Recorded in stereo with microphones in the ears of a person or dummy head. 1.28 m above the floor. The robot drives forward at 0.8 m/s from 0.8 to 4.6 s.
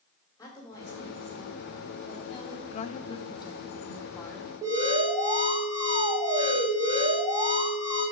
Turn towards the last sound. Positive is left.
turn(degrees=-15)  # may be behind; listen again after turning